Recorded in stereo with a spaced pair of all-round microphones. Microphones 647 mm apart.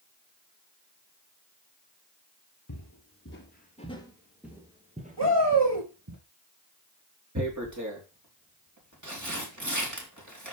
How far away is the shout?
About 8 m.